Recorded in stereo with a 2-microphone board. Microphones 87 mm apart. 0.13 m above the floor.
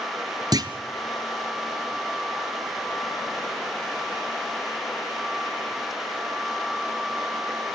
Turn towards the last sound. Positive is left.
turn(degrees=-50)  # may be behind; listen again after turning